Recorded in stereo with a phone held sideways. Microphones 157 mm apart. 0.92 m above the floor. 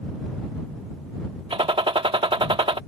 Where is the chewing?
I don't hear chewing.